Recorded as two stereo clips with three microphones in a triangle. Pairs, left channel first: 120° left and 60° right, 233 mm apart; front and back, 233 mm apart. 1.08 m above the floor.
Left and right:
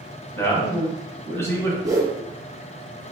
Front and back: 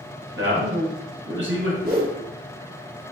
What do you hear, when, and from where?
0.4 s a man speaking: 165° right, 1.3 m
1.8 s a whoosh: 135° right, 1.1 m